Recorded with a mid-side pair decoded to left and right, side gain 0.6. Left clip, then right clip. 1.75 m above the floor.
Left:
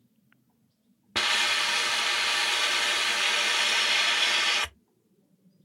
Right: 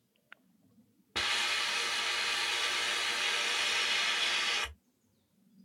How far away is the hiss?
About 0.6 m.